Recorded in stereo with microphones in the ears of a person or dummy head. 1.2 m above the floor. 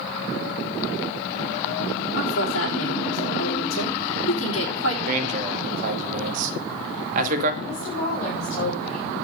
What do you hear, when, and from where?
2.2 s a woman speaking: 70° left (ahead or behind), 3.5 m
5.1 s a man speaking: 50° right (ahead or behind), 2 m
7.6 s a woman speaking: 50° left (ahead or behind), 4.5 m